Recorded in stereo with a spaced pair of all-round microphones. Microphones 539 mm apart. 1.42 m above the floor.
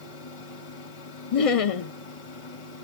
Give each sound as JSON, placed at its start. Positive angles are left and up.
{"t": 0.0, "sound": "a fan", "side_deg": 70, "distance_m": 1.4}
{"t": 1.3, "sound": "laughter", "side_deg": 85, "distance_m": 0.8}